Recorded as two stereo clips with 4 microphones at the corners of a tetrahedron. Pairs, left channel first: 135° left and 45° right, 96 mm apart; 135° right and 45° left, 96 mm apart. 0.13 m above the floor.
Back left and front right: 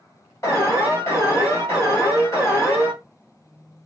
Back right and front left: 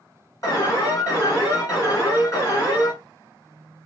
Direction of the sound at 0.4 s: Straight behind.